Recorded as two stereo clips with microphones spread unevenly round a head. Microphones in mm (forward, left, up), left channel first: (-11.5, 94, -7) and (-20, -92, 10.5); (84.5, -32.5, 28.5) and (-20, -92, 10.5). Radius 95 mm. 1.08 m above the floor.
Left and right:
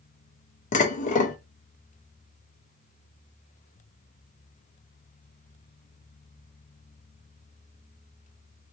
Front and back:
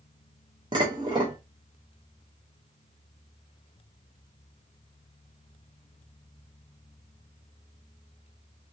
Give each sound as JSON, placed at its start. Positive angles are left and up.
{"t": 0.7, "sound": "dishes clattering", "azimuth_deg": 140, "distance_m": 0.5}